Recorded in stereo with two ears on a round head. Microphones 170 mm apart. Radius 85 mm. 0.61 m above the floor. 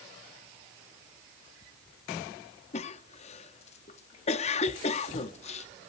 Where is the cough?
35° left (ahead or behind), 0.8 m.